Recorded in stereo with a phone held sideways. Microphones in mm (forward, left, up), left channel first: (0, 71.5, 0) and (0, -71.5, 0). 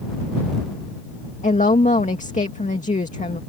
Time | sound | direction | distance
1.4 | a woman speaking | 60° left (ahead or behind) | ?